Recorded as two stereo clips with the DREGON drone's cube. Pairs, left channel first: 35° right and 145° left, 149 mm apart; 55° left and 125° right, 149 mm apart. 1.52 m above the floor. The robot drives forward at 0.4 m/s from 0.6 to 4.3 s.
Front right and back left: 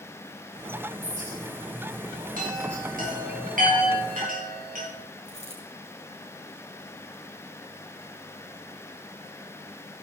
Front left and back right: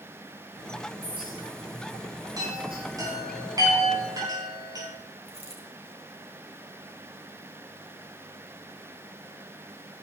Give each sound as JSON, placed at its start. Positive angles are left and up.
{"t": 1.0, "sound": "a clink", "azimuth_deg": -175, "distance_m": 8.0}
{"t": 2.4, "sound": "a chime", "azimuth_deg": 170, "distance_m": 5.5}
{"t": 5.2, "sound": "a dropped coin", "azimuth_deg": -80, "distance_m": 5.0}